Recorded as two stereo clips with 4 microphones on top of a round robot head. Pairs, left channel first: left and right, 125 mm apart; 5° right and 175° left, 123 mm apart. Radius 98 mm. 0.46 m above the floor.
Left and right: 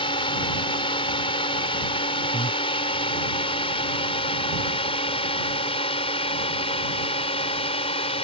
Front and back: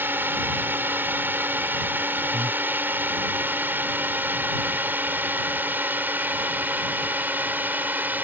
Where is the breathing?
135° left.